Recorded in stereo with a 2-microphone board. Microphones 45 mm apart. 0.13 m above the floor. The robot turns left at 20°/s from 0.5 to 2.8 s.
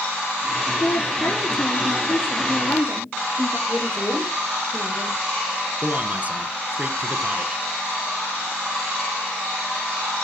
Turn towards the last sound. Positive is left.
turn(degrees=-35)  # may be behind; listen again after turning